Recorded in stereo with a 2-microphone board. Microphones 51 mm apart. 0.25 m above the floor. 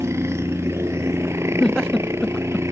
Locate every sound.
0.0 s a helicopter: 60° right (ahead or behind)
1.6 s a giggle: 15° left (ahead or behind)